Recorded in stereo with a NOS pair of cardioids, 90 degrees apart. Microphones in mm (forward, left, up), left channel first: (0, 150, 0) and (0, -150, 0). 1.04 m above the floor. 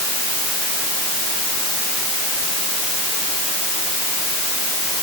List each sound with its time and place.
Only background noise.